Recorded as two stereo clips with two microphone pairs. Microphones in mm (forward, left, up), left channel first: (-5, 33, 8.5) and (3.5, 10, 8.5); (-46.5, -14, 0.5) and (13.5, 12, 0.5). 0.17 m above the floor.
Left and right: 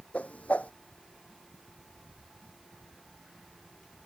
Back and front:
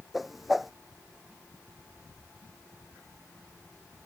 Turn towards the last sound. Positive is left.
turn(degrees=110)